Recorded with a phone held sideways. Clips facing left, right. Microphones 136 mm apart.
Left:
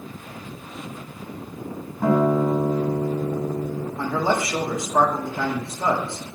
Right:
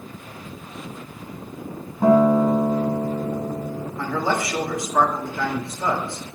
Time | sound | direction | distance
2.0 | a guitar | 20° right (ahead or behind) | 1.4 m
4.0 | a man speaking | 25° left (ahead or behind) | 1.7 m